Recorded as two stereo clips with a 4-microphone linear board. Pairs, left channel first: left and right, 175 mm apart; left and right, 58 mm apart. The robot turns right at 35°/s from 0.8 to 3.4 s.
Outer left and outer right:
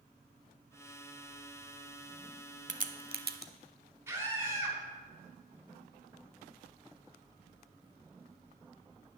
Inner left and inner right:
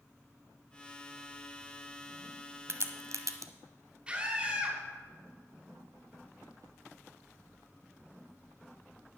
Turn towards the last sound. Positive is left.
turn(degrees=-15)  # may be behind; listen again after turning